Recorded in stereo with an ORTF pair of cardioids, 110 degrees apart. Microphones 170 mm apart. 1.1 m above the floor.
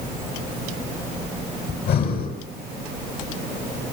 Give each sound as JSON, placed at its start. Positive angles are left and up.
{"t": 1.7, "sound": "breathing", "azimuth_deg": 70, "distance_m": 7.0}